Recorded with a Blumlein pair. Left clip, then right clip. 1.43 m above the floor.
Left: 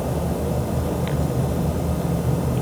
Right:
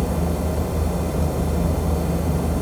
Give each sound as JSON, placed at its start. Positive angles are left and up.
{"t": 0.0, "sound": "a fan", "azimuth_deg": -15, "distance_m": 3.5}